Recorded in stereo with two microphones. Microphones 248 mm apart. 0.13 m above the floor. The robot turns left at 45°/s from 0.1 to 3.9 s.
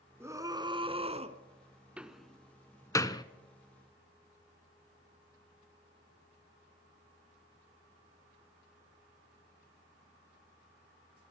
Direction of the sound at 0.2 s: 10° right (ahead or behind).